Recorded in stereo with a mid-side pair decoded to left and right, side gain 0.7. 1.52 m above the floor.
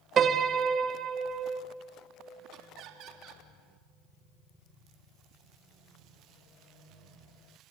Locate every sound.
0.2 s a piano: 35° right, 1.5 m
2.5 s laughter: 55° right, 3 m